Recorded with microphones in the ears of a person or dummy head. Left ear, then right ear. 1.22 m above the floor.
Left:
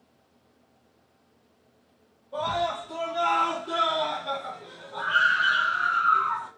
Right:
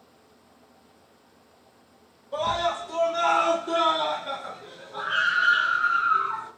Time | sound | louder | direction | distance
2.3 | a scream | right 2 dB | 75° right (ahead or behind) | 1.0 m